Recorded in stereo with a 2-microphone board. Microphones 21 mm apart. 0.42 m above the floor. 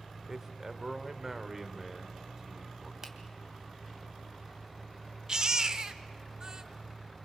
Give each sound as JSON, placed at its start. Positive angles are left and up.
{"t": 0.3, "sound": "a man speaking", "side_deg": -20, "distance_m": 1.4}
{"t": 3.0, "sound": "a finger snap", "side_deg": -20, "distance_m": 2.5}
{"t": 5.3, "sound": "a baby crying", "side_deg": -30, "distance_m": 0.8}